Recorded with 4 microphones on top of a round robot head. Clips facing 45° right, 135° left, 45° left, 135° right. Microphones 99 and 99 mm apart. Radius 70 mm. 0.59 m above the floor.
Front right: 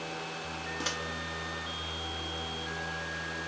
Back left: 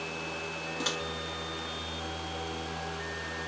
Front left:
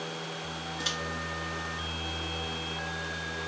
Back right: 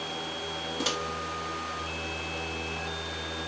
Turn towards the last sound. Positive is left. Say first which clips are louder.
# back left 3 dB, back right 7 dB
turn(degrees=-145)